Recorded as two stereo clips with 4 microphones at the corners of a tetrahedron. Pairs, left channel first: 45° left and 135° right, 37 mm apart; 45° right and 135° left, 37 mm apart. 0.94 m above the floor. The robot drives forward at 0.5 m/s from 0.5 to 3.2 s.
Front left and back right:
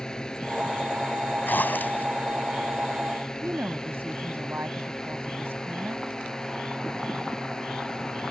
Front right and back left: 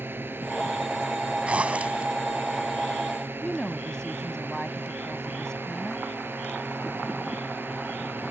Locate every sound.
0.0 s a drone: 115° left; by 8.3 s 120° left
1.5 s a zipper: 80° left
3.4 s a woman speaking: 115° right